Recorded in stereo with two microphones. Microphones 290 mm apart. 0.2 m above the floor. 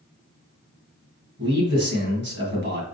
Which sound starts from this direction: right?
A man speaking, at 1.4 s.